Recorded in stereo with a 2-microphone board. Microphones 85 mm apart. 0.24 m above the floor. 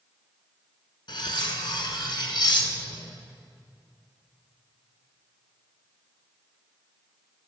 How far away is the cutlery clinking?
About 1.4 m.